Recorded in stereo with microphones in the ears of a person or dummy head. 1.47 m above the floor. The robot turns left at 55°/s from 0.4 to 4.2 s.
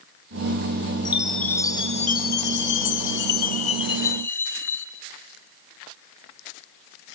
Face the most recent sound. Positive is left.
turn(degrees=15)